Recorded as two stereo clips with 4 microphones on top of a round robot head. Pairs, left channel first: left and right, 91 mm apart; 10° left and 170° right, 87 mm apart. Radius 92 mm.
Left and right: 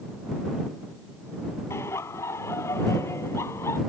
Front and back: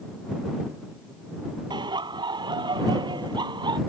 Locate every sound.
1.7 s laughter: 155° left